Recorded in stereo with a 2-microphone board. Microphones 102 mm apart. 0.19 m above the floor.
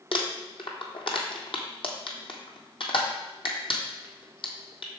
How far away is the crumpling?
About 1.4 m.